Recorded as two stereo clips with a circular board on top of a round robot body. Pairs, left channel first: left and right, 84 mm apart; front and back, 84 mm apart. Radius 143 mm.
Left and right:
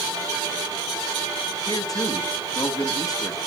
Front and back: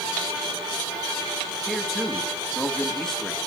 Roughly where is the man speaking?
Left.